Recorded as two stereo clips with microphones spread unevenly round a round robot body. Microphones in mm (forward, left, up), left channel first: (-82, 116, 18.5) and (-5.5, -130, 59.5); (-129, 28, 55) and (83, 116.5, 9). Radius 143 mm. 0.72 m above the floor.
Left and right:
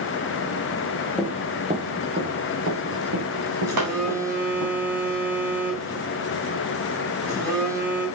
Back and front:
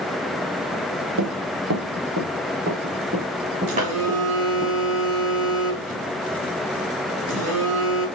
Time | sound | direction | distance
1.2 | running footsteps | 10° left | 1.1 m
3.7 | a phone buzzing | 5° left | 3 m